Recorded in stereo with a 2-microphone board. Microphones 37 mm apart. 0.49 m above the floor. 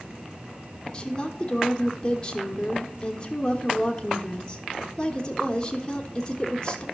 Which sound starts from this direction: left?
A woman speaking, at 0.9 s.